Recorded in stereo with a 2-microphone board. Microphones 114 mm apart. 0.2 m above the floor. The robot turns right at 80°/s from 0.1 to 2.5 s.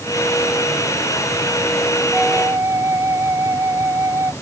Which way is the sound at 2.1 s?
175° left.